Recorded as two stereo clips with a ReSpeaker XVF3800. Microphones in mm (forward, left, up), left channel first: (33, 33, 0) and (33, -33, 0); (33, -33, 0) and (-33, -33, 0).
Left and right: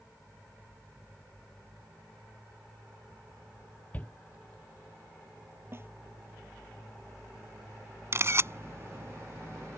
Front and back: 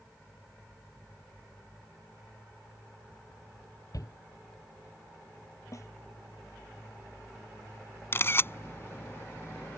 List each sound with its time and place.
3.9 s a shout: 25° left
5.7 s a snare drum: 40° right
8.1 s a camera shutter: 50° right